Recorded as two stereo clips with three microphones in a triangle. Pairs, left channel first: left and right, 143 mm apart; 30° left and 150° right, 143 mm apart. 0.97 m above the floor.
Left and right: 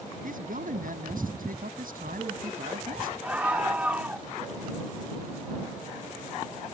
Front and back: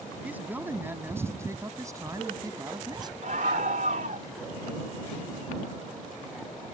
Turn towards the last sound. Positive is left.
turn(degrees=-170)